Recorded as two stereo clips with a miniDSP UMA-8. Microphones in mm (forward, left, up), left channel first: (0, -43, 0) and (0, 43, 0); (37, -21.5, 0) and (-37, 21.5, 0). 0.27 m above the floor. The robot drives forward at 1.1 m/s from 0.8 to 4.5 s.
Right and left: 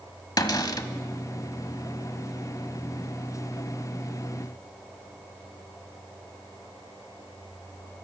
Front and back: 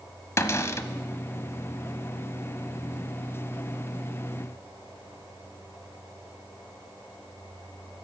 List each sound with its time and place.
0.4 s a cupboard door: 75° right, 1.0 m; by 0.9 s 80° right, 1.0 m